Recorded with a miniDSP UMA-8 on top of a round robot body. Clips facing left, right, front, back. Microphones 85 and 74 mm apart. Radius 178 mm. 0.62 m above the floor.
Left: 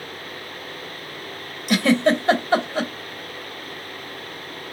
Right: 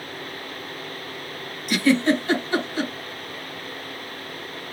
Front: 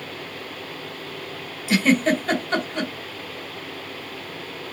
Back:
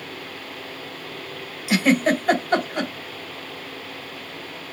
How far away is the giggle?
About 2.0 m.